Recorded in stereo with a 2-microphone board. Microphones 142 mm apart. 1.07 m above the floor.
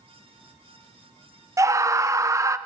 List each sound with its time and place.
1.6 s a scream: 20° right (ahead or behind), 0.5 m